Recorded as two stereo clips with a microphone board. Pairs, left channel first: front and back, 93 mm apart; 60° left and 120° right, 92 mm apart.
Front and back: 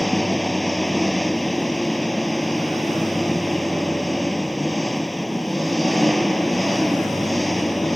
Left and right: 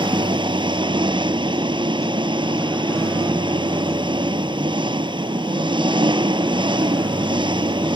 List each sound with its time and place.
0.0 s an engine running: 90° right